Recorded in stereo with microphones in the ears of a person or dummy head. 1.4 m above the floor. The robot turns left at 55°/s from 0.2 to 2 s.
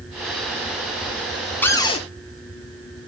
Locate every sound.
1.6 s a cupboard door: 10° left (ahead or behind), 0.5 m; by 2.0 s 30° left (ahead or behind), 0.5 m